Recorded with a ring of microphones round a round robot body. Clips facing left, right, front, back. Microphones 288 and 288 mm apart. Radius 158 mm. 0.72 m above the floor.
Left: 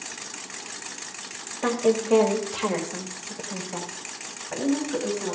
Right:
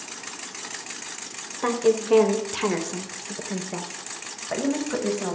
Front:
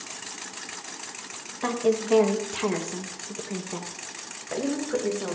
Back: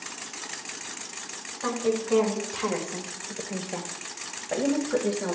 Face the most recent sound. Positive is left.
turn(degrees=-90)